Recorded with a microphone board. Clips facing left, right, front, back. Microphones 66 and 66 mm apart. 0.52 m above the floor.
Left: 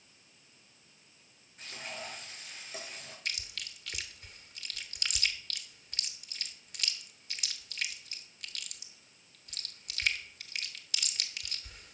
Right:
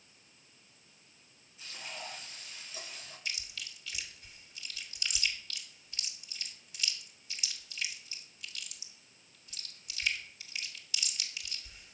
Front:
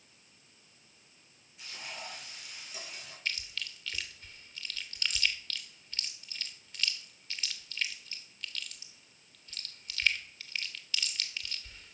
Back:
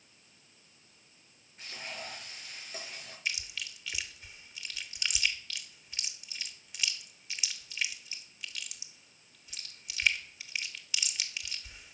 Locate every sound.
1.6 s frying: 125° left, 5.5 m
3.2 s chewing: 105° left, 1.0 m